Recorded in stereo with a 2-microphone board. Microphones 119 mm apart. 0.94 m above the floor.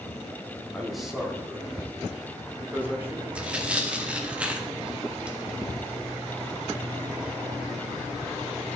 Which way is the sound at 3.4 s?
10° right (ahead or behind).